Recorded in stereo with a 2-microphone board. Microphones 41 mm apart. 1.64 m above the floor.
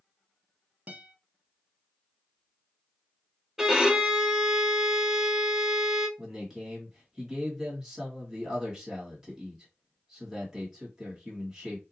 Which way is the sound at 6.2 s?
15° right (ahead or behind).